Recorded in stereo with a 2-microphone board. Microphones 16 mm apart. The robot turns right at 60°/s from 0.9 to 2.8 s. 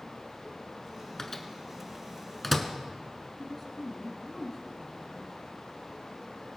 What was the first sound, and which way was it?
A microwave, 25° left (ahead or behind).